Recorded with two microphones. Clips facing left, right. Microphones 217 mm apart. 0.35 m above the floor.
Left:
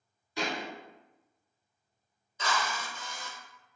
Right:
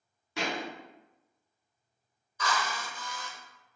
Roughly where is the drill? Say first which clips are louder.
Even; left.